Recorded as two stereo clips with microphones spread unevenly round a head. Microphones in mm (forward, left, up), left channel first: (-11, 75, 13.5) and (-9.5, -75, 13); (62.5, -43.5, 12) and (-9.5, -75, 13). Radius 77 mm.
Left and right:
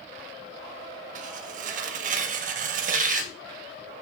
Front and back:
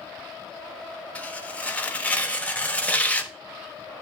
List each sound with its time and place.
1.1 s tearing paper: 50° right, 1.3 m